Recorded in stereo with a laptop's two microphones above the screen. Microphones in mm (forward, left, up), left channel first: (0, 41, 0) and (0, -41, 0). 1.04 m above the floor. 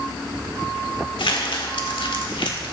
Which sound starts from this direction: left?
Crumpling, at 1.2 s.